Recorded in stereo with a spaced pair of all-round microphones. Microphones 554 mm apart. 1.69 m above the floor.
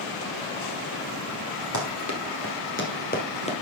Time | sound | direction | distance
1.7 | running footsteps | 30° left (ahead or behind) | 2.5 m